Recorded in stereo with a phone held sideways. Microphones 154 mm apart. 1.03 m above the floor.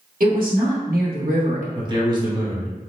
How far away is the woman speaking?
About 1.3 m.